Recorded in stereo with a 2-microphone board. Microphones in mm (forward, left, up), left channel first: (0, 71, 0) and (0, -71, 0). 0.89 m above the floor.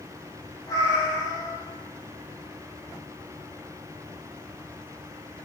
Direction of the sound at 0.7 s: 25° left (ahead or behind).